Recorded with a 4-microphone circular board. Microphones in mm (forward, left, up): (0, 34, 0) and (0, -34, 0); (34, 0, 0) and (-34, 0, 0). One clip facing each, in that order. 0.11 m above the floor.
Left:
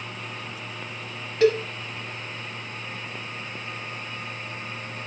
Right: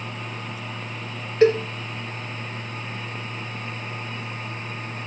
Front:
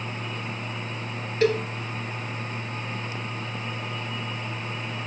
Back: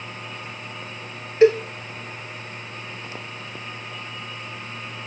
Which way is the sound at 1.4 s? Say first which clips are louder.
Right 3 dB, back 7 dB; 130° right.